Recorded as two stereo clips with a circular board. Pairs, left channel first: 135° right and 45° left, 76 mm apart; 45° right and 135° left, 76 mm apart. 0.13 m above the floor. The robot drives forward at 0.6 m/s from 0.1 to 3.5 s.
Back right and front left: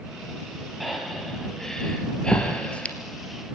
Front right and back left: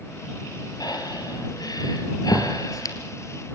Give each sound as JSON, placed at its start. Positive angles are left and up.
{"t": 0.8, "sound": "breathing", "azimuth_deg": -45, "distance_m": 4.0}